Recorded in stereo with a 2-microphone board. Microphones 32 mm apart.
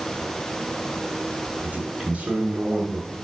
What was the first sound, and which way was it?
A man speaking, 65° right (ahead or behind).